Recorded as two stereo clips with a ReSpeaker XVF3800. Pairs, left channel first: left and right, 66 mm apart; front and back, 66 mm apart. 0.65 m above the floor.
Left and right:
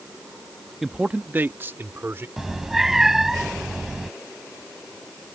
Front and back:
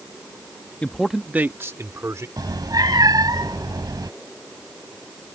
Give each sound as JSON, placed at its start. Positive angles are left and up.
{"t": 0.8, "sound": "a man speaking", "azimuth_deg": -15}
{"t": 2.4, "sound": "a cat meowing", "azimuth_deg": -175}